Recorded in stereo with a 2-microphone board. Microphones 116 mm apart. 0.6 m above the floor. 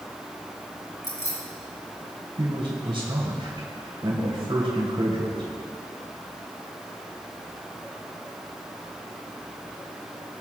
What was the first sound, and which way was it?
Keys jangling, 30° left (ahead or behind).